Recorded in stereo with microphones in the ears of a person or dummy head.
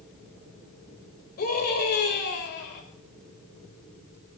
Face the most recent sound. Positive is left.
turn(degrees=60)  # may be behind; listen again after turning